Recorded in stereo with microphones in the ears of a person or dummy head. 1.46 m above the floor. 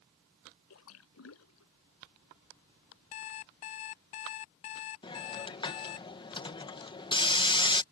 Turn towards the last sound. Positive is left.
turn(degrees=25)  # may be behind; listen again after turning